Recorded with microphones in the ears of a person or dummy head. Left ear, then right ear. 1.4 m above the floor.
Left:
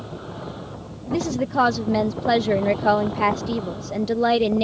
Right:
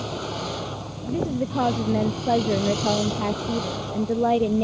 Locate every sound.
0.0 s a vehicle: 80° right
1.1 s a woman speaking: 65° left (ahead or behind)